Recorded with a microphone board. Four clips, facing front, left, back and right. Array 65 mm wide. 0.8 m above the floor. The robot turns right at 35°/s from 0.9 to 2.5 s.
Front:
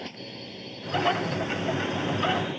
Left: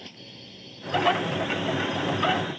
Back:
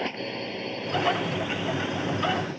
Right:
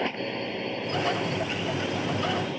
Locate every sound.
0.0 s a drone: 120° right; by 2.6 s 70° right